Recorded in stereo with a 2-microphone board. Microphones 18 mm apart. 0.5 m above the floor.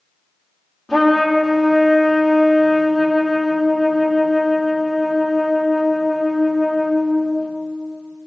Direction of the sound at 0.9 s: 35° left (ahead or behind).